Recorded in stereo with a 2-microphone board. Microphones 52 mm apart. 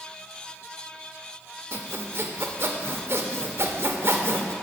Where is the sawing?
50° right (ahead or behind), 0.5 m.